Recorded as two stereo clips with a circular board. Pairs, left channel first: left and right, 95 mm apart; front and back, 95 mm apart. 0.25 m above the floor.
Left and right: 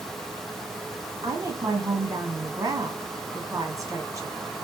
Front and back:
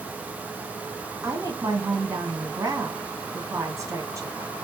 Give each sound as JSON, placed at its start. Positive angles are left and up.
{"t": 1.2, "sound": "a woman speaking", "azimuth_deg": -135, "distance_m": 1.7}